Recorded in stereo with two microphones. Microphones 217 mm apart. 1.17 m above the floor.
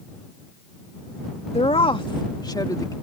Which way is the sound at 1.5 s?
25° left (ahead or behind).